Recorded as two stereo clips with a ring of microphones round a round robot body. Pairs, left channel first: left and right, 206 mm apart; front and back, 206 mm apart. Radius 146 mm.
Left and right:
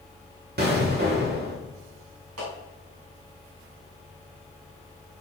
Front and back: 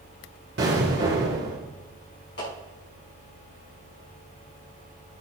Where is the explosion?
125° right, 4 m.